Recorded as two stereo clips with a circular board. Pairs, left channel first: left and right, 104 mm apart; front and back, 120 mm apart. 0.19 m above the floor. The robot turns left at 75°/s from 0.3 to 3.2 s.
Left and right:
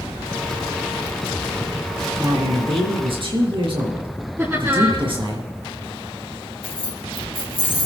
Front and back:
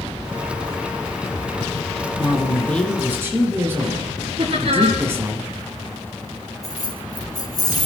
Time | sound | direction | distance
2.2 | a man speaking | 40° right | 3.5 m
4.4 | laughter | 155° right | 7 m
6.6 | keys jangling | 60° left | 4 m